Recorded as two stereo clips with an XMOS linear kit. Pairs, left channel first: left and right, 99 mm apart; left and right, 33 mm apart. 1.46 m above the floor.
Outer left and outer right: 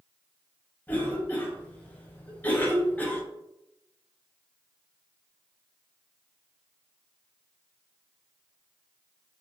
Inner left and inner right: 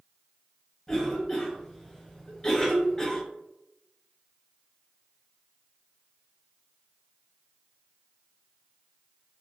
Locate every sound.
0.9 s a cough: 15° left (ahead or behind), 0.7 m